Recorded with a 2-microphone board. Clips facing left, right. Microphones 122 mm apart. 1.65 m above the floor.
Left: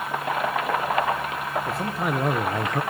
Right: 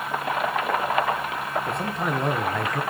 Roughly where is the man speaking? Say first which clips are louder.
Even; centre.